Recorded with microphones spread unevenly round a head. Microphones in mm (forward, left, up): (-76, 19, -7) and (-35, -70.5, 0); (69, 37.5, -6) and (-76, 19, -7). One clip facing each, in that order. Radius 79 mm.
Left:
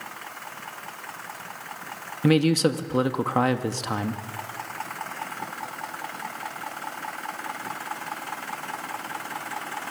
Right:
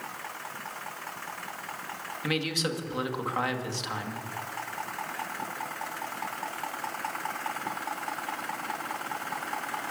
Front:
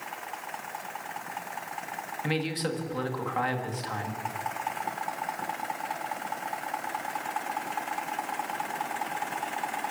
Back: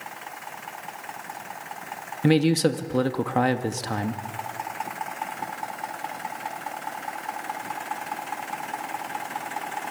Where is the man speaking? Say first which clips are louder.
Left 11 dB, back 12 dB; 155° left, 2 m.